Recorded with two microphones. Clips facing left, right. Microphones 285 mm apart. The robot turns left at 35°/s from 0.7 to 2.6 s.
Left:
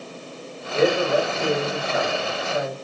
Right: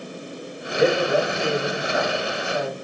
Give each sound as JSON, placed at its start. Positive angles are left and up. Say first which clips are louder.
{"t": 0.8, "sound": "a man speaking", "louder": "even", "azimuth_deg": 115, "distance_m": 1.0}